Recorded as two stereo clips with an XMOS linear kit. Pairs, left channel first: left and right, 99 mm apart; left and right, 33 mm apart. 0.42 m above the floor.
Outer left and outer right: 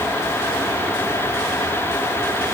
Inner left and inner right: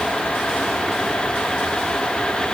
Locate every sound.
Only background noise.